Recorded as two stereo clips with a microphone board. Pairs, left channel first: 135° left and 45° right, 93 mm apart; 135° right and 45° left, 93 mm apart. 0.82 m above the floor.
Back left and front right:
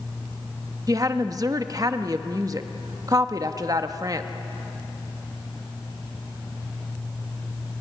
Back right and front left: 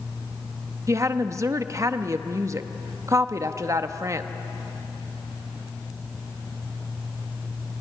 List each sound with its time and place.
0.9 s a woman speaking: 5° right, 0.9 m